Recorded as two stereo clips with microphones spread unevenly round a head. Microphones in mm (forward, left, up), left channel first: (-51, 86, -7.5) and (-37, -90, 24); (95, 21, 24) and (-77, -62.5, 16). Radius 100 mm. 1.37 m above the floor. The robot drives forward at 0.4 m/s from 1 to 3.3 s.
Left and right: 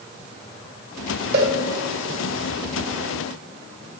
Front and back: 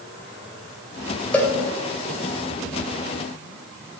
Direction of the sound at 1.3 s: 55° right.